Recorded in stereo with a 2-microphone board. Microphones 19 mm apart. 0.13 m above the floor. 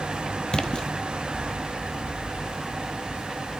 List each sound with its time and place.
0.5 s a splash: 45° left (ahead or behind), 1.4 m